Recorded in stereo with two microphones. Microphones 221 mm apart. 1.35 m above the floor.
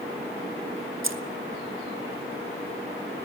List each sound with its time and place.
1.0 s keys jangling: 70° right (ahead or behind), 0.7 m